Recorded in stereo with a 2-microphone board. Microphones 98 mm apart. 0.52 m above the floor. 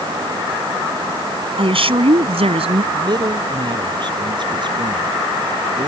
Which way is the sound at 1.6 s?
60° right (ahead or behind).